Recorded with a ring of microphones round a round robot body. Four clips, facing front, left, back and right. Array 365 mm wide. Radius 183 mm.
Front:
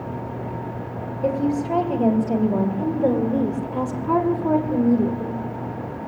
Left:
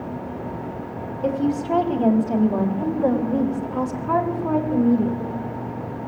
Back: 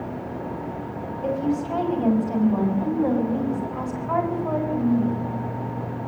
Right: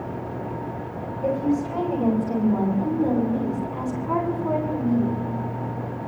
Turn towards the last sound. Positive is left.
turn(degrees=10)